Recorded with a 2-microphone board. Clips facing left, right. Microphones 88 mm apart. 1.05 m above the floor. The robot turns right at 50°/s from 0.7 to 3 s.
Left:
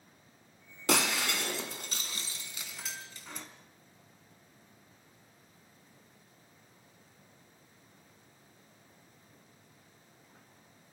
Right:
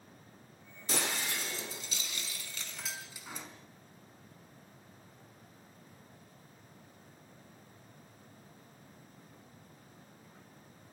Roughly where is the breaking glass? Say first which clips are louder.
Left 6 dB; left.